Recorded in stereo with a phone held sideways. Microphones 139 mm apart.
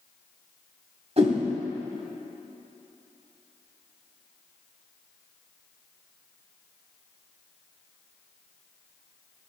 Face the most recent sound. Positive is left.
turn(degrees=-45)  # may be behind; listen again after turning